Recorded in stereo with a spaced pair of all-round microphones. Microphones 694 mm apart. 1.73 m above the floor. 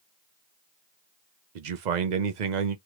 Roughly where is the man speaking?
Right.